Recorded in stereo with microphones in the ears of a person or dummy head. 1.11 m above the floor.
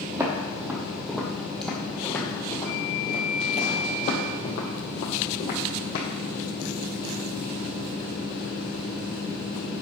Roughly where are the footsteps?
Centre.